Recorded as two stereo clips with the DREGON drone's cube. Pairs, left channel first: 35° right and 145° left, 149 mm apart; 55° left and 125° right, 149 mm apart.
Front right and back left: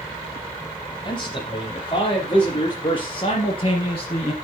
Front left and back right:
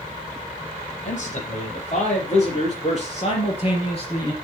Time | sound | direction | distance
1.1 | a man speaking | 25° left | 6 m